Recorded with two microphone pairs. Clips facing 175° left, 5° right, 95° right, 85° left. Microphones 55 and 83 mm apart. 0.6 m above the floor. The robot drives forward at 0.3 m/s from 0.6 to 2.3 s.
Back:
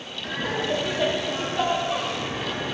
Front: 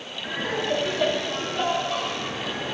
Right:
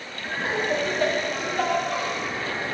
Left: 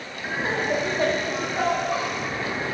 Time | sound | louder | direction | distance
0.2 | laughter | even, left 1 dB | 65° left | 1.1 m